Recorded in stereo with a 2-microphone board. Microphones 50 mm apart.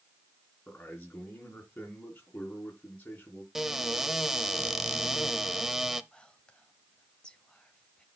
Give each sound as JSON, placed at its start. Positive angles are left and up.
{"t": 0.7, "sound": "a man speaking", "side_deg": 45, "distance_m": 4.0}
{"t": 3.5, "sound": "a cupboard door", "side_deg": -5, "distance_m": 0.8}
{"t": 6.1, "sound": "whispering", "side_deg": 20, "distance_m": 1.1}